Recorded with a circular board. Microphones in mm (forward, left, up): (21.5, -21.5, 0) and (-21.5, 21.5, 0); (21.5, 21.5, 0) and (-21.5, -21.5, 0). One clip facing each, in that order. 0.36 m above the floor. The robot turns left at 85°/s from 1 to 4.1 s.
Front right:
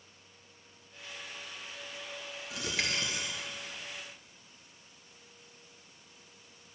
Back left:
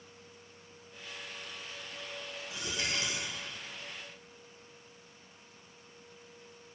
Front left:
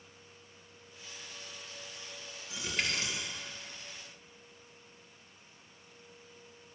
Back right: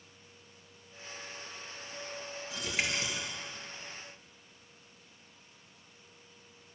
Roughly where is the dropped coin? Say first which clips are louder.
Front right 2 dB, back right 1 dB; ahead right.